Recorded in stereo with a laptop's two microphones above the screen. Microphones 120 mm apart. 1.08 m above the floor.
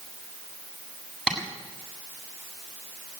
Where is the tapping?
5° right (ahead or behind), 7.5 m.